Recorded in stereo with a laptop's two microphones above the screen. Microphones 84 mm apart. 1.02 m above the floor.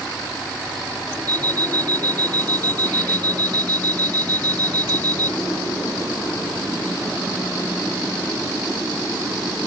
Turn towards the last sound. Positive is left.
turn(degrees=20)  # may be behind; listen again after turning